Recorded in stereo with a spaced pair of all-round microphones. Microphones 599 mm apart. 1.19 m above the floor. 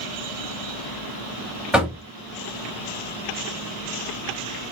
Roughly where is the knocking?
Centre.